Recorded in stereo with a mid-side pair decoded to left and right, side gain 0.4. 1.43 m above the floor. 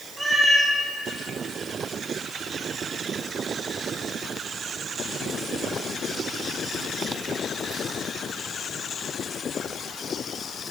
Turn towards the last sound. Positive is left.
turn(degrees=-25)